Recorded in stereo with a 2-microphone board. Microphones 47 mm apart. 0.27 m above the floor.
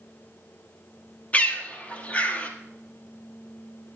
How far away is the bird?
About 1.4 m.